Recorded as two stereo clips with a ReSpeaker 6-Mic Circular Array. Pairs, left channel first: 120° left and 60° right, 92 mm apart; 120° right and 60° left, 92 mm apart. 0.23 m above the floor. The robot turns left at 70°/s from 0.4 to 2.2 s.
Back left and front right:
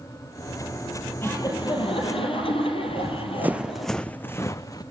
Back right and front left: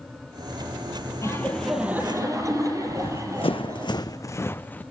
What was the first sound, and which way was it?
Laughter, 175° right.